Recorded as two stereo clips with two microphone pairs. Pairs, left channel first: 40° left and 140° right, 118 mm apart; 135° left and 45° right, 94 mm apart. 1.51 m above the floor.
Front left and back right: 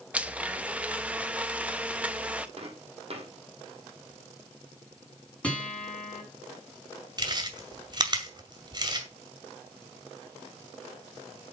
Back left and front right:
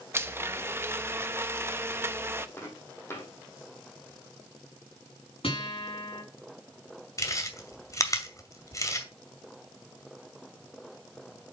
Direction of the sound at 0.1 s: 70° right.